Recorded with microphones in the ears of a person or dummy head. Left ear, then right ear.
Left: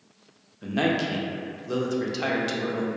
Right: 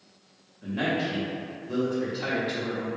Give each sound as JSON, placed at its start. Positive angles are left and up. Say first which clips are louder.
{"t": 0.6, "sound": "a man speaking", "louder": "left 3 dB", "side_deg": 80, "distance_m": 0.6}